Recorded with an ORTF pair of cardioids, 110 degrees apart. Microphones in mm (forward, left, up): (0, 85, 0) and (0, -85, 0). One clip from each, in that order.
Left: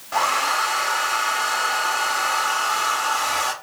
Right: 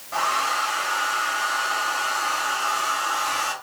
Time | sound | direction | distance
0.1 | a hair dryer | 30° left | 0.7 m